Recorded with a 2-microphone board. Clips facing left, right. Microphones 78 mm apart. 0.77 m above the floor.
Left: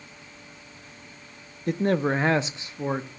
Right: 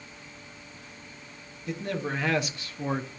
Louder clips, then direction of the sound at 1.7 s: Left 8 dB; 50° left (ahead or behind).